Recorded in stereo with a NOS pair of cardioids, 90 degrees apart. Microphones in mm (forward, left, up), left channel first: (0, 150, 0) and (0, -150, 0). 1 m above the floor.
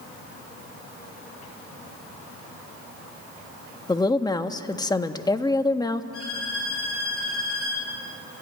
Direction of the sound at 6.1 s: 50° left.